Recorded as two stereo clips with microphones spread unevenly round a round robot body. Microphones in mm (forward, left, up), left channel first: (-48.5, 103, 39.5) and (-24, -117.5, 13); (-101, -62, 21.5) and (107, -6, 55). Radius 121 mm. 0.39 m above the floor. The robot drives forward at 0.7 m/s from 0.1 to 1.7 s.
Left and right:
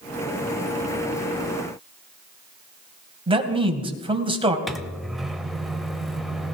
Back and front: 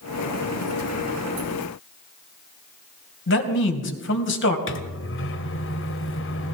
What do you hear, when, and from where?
3.3 s a man speaking: 145° right, 2.5 m
4.7 s a microwave: 170° right, 1.2 m